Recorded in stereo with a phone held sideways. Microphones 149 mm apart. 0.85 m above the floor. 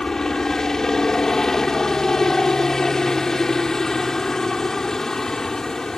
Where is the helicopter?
5° left (ahead or behind).